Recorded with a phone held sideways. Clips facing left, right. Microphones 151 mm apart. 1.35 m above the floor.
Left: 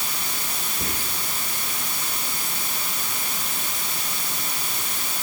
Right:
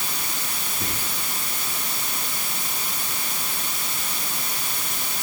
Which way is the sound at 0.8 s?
35° left (ahead or behind).